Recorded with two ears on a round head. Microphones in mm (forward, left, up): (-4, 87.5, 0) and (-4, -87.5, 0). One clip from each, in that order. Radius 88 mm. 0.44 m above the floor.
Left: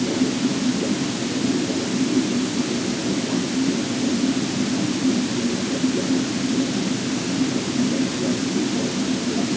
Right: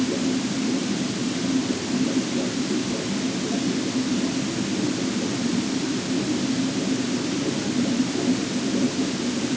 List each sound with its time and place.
Only background noise.